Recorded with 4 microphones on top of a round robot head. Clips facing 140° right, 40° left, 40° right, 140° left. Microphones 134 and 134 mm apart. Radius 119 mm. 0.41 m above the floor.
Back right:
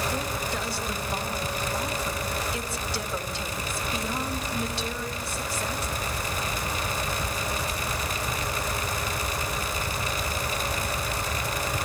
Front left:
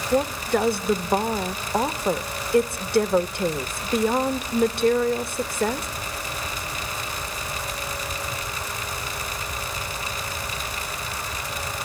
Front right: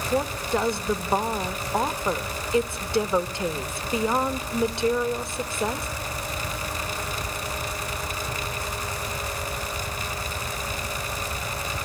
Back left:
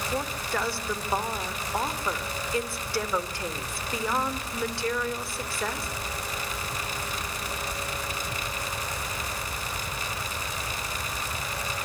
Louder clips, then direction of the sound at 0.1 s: Front left 9 dB, front right 7 dB; 25° left.